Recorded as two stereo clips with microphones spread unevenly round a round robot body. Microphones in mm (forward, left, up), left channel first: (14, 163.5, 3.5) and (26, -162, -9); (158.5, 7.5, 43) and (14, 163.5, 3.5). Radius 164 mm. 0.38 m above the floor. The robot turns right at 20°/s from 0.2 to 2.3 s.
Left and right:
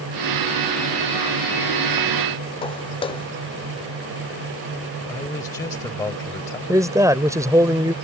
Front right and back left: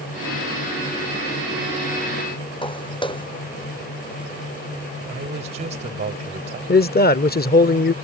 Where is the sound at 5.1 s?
170° left.